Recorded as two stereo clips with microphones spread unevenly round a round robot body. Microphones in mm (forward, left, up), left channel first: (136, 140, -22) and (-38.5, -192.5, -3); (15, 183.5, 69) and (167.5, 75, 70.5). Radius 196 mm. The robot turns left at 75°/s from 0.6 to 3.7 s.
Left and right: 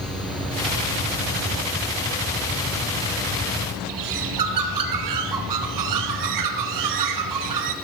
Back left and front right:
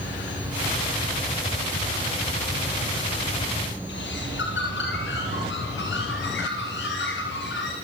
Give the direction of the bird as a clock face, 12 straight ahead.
5 o'clock.